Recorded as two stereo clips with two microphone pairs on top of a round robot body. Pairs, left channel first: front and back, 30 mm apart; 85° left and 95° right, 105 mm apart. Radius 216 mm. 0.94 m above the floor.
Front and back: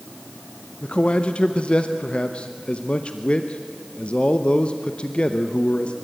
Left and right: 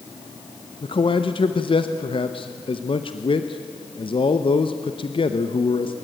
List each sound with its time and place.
0.8 s a man speaking: 50° left, 1.1 m